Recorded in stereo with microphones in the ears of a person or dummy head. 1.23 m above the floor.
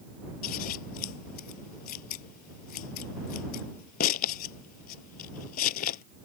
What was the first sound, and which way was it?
Scissors, 55° left (ahead or behind).